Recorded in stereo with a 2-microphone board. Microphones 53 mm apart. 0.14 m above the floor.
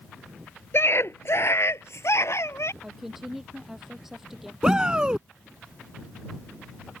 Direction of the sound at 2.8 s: 5° right (ahead or behind).